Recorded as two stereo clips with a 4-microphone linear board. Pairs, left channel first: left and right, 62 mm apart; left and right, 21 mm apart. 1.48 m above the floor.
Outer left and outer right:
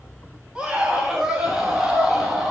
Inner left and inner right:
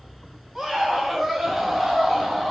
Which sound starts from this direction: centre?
A scream, at 0.6 s.